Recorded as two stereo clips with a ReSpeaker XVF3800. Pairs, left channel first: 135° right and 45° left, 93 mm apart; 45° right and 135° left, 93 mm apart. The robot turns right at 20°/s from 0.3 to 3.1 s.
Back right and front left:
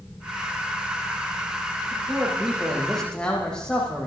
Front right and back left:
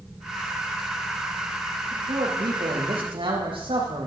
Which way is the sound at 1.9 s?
120° left.